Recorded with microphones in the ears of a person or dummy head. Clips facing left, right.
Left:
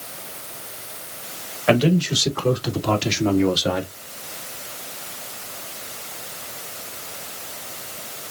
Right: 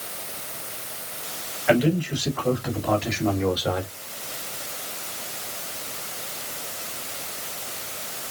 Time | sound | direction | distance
1.7 | a man speaking | 60° left (ahead or behind) | 2.5 m